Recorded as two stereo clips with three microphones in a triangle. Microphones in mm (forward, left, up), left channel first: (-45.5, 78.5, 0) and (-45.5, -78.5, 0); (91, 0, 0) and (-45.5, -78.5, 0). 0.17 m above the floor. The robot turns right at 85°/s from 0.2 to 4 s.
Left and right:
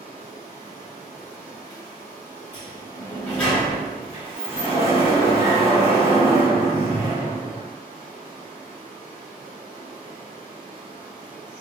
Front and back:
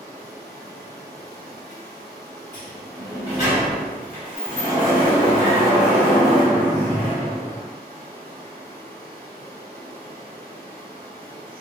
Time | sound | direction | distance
0.0 | running water | 90° right | 1.7 m
2.5 | a sliding door | 90° left | 1.6 m